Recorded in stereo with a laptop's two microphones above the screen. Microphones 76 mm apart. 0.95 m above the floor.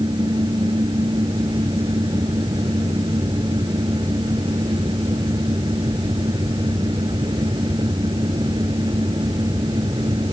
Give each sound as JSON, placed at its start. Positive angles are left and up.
{"t": 0.0, "sound": "a fan", "side_deg": -80}